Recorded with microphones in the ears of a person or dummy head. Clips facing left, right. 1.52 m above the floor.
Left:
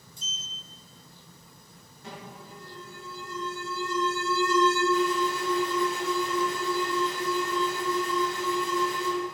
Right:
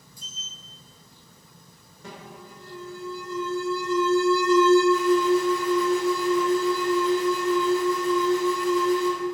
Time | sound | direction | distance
0.2 | a sliding door | 15° left (ahead or behind) | 0.8 m
2.0 | an alarm | 80° right | 3.5 m